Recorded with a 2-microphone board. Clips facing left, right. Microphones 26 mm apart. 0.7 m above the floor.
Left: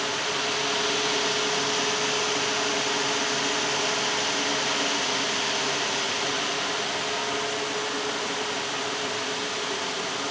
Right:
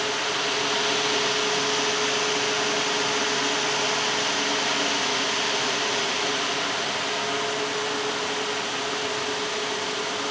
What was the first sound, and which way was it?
Only background noise.